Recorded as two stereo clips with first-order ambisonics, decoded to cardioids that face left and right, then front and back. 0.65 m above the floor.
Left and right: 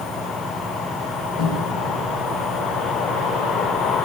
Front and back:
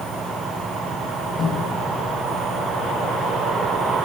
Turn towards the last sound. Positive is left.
turn(degrees=85)